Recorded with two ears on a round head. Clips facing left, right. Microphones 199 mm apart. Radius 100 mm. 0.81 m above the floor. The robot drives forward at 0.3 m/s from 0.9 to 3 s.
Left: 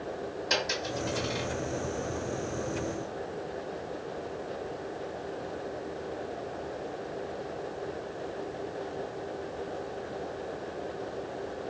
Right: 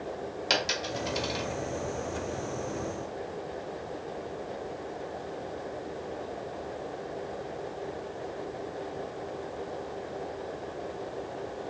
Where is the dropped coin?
80° right, 1.3 m; by 1.4 s 85° right, 1.3 m.